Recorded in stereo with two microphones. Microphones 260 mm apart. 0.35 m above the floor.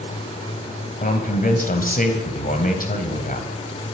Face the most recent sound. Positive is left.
turn(degrees=30)  # may be behind; listen again after turning